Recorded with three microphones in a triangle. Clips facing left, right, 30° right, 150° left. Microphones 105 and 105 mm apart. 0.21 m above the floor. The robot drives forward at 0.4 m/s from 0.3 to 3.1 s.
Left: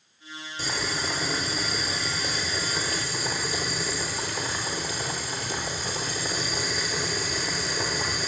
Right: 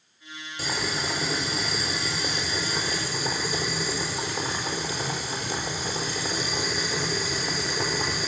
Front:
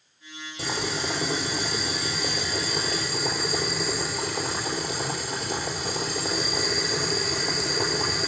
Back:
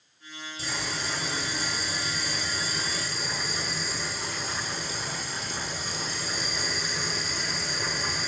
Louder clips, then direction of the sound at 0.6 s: Right 1 dB, front 5 dB; 15° right.